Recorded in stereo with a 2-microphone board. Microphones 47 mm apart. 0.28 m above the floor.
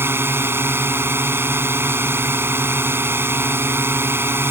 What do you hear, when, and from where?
0.0 s a drone: 50° right (ahead or behind)